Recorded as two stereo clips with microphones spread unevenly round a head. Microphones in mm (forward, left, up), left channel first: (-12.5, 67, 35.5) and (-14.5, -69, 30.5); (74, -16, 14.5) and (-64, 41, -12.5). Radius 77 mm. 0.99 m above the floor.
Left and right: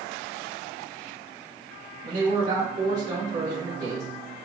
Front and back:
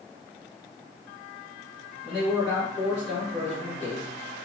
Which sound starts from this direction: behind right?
A man speaking, at 2.0 s.